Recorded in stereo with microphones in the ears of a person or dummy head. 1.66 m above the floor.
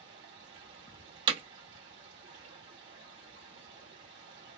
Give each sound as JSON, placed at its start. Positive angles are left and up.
{"t": 0.0, "sound": "running water", "side_deg": -50, "distance_m": 1.2}
{"t": 1.3, "sound": "hammering", "side_deg": -30, "distance_m": 0.6}